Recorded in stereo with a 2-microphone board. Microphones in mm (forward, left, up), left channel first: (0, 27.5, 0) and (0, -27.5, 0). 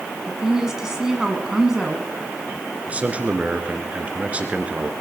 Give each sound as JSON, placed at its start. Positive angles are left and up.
{"t": 0.3, "sound": "a woman speaking", "side_deg": -10, "distance_m": 1.6}
{"t": 2.9, "sound": "a man speaking", "side_deg": -25, "distance_m": 1.8}